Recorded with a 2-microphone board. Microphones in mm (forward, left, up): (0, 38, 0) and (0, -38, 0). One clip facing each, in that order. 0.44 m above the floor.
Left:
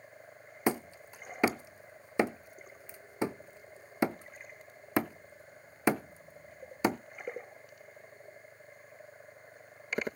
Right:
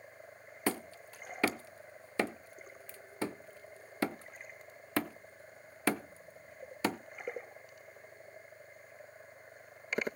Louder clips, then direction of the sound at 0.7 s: Left 4 dB; 20° left (ahead or behind).